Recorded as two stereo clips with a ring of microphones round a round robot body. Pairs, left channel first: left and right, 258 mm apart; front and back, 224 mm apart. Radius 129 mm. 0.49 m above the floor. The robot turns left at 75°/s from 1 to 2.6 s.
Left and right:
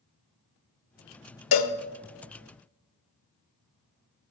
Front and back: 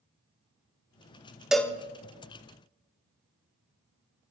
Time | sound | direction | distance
1.5 | a cowbell | 95° left | 0.6 m